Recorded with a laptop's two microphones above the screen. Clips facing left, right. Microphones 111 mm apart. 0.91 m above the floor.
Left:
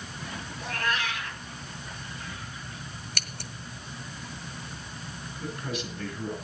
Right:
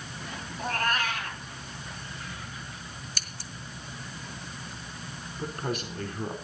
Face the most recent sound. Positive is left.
turn(degrees=-50)  # may be behind; listen again after turning